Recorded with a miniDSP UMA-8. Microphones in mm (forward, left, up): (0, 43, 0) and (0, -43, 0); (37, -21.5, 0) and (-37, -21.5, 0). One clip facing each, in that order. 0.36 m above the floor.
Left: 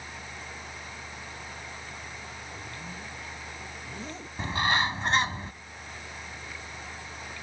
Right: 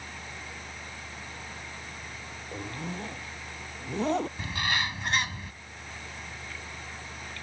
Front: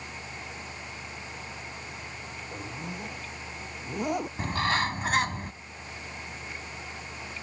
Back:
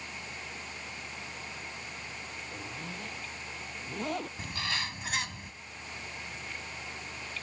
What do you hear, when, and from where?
2.5 s a zipper: 75° right
4.4 s a bird: 40° left